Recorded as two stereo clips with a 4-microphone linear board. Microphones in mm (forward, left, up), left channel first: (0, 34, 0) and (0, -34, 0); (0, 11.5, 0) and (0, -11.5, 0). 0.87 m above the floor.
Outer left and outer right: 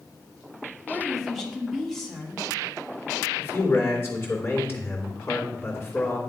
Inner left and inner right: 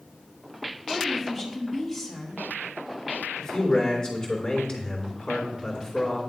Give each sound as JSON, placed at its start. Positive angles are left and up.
{"t": 0.9, "sound": "a woman speaking", "side_deg": 5, "distance_m": 1.7}
{"t": 3.4, "sound": "a man speaking", "side_deg": 35, "distance_m": 2.5}